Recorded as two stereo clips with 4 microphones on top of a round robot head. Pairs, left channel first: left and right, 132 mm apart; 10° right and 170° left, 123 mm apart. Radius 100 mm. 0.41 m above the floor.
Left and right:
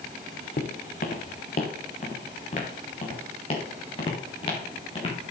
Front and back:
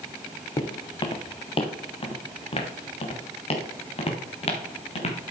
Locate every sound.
0.6 s footsteps: 50° left, 1.6 m; by 5.2 s 25° left, 4 m